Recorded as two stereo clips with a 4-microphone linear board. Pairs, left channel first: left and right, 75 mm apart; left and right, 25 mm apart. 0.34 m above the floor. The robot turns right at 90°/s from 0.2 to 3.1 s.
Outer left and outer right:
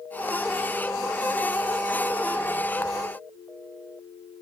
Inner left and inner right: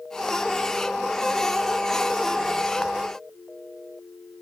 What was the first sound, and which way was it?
Only background noise.